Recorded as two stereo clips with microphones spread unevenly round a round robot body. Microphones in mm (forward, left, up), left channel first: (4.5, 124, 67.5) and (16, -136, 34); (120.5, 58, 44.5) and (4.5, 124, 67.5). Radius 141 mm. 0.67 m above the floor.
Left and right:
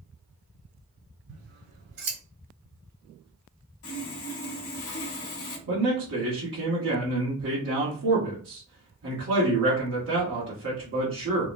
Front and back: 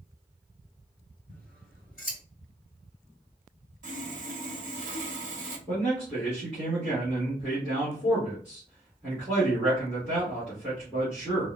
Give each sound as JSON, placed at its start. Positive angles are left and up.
{"t": 1.3, "sound": "scissors", "azimuth_deg": -125, "distance_m": 1.9}
{"t": 3.8, "sound": "sawing", "azimuth_deg": 130, "distance_m": 1.0}
{"t": 5.7, "sound": "a man speaking", "azimuth_deg": -110, "distance_m": 1.3}